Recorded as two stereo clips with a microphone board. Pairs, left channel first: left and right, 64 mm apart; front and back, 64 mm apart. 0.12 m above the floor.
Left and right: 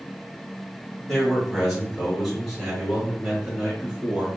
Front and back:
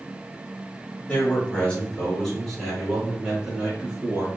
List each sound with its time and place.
1.1 s a man speaking: 5° left, 1.8 m; by 4.4 s 150° right, 1.8 m